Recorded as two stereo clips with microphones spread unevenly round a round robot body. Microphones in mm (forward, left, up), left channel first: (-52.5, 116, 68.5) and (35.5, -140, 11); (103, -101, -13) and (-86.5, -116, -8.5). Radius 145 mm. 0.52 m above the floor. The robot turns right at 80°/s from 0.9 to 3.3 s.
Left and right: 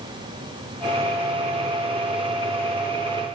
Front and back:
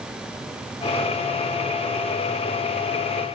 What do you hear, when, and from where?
Only background noise.